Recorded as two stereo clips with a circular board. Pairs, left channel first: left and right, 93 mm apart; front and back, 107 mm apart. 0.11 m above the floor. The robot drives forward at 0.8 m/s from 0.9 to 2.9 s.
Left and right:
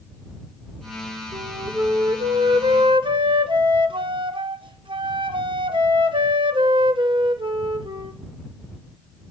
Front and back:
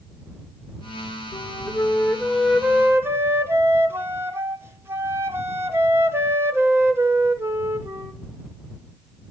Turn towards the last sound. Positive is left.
turn(degrees=-110)